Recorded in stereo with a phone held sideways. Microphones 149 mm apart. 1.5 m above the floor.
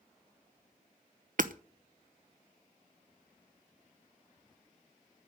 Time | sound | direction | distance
1.4 | hammering | 65° right (ahead or behind) | 0.9 m